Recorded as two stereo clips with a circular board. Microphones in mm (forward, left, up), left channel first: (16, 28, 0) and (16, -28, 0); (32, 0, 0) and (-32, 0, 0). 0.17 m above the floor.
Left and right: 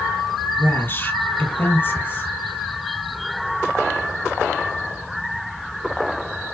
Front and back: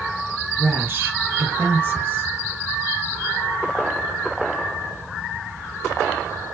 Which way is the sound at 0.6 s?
130° left.